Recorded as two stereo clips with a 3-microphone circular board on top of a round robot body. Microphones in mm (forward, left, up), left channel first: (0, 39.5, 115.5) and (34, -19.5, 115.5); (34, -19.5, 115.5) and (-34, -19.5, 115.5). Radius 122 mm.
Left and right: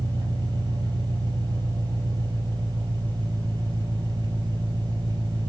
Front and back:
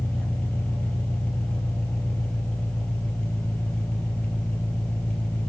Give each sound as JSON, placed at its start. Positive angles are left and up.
{"t": 0.0, "sound": "an engine running", "azimuth_deg": -75, "distance_m": 3.5}